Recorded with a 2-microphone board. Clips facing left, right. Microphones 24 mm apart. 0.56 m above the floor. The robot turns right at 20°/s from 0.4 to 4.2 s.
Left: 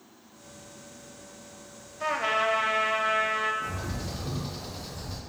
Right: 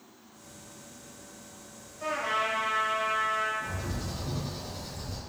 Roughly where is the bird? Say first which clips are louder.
Left 2 dB; left.